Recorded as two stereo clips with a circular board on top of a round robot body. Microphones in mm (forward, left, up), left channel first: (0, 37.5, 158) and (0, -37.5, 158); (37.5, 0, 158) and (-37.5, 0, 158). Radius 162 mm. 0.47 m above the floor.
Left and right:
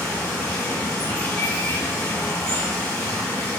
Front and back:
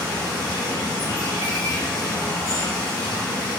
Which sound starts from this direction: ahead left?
Running water, at 0.0 s.